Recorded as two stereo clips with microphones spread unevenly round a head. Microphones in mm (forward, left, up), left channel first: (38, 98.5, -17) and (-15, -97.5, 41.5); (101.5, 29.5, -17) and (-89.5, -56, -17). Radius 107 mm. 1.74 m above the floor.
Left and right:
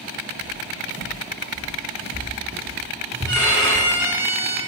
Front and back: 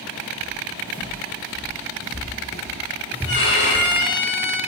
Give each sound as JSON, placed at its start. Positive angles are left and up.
{"t": 0.4, "sound": "footsteps", "azimuth_deg": -40, "distance_m": 5.5}
{"t": 3.2, "sound": "a violin", "azimuth_deg": -10, "distance_m": 6.0}